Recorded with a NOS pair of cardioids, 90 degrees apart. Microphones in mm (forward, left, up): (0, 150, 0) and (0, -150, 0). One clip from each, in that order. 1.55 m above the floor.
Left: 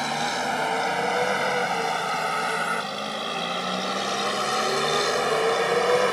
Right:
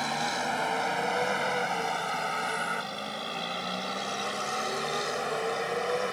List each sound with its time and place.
0.0 s a vehicle: 30° left; by 6.1 s 65° left